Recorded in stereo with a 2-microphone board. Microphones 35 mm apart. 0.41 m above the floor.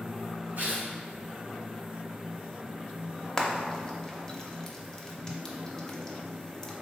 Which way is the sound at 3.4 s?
20° left (ahead or behind).